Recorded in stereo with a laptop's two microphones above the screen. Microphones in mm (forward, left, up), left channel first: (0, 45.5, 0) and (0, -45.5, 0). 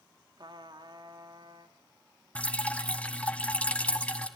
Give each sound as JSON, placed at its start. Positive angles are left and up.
{"t": 0.4, "sound": "a trumpet", "side_deg": -60, "distance_m": 1.5}
{"t": 2.4, "sound": "dripping", "side_deg": 15, "distance_m": 1.5}